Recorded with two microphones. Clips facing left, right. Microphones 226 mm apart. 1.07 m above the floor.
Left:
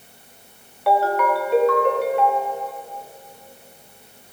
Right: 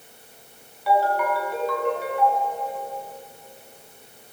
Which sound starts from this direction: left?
A ringtone, at 0.9 s.